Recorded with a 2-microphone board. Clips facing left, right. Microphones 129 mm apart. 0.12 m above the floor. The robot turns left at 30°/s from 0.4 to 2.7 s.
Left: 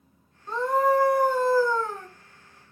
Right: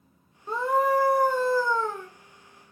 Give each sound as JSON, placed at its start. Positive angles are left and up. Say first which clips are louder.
{"t": 0.5, "sound": "a scream", "louder": "left 1 dB", "side_deg": -10, "distance_m": 1.4}